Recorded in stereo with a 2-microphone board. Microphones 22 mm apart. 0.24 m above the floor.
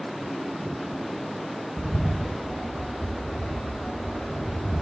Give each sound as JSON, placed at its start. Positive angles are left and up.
{"t": 1.8, "sound": "a bird", "side_deg": 60, "distance_m": 4.0}